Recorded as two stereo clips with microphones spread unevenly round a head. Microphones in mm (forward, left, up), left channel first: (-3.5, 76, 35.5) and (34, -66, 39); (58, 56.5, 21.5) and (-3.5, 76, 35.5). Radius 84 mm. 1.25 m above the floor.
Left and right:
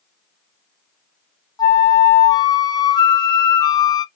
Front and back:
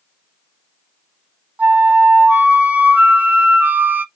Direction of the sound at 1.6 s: 100° left.